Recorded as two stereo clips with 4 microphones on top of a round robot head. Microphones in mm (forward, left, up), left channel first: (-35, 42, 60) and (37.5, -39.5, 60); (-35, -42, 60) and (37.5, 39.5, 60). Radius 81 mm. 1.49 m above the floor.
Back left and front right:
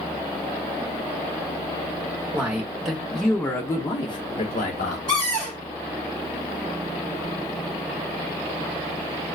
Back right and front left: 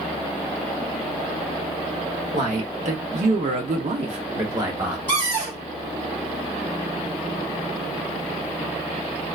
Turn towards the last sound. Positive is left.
turn(degrees=50)